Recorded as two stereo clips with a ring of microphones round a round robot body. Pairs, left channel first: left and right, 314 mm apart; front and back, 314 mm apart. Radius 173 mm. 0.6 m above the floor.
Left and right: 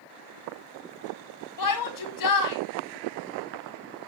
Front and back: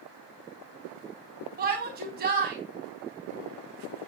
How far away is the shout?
About 4 m.